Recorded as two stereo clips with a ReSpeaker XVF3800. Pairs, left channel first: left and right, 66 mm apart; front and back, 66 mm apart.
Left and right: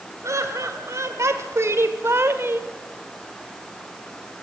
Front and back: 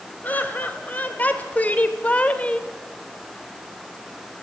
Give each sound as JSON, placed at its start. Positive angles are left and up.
{"t": 0.2, "sound": "laughter", "azimuth_deg": -60, "distance_m": 2.5}